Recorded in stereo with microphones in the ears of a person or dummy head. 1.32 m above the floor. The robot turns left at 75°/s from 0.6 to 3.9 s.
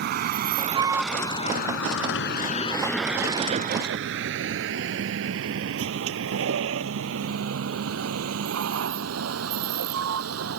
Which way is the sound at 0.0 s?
55° right (ahead or behind).